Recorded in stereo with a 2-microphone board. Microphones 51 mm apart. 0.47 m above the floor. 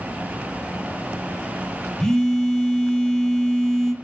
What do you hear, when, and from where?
2.0 s a phone buzzing: 15° left (ahead or behind), 0.9 m